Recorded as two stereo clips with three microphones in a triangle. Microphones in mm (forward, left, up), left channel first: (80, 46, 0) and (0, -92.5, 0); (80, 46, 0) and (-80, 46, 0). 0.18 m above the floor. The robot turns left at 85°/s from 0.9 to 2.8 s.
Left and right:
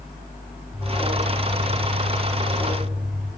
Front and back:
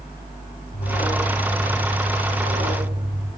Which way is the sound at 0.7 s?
30° right.